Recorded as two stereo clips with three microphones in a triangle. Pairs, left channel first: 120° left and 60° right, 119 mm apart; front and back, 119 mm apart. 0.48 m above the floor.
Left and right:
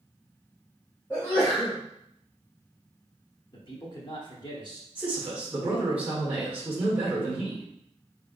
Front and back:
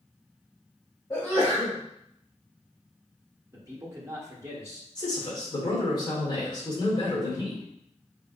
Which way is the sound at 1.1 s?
55° left.